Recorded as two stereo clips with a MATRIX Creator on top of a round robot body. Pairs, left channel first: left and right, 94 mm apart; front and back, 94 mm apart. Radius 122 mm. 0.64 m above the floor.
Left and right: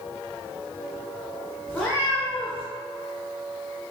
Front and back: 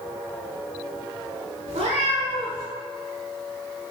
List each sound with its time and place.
1.7 s a cat meowing: 175° left, 1.0 m